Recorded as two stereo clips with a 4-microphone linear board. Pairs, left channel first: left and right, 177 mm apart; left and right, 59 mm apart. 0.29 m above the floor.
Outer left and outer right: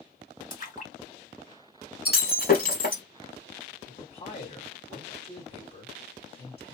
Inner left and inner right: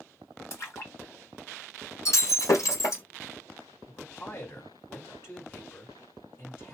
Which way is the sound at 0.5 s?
45° left (ahead or behind).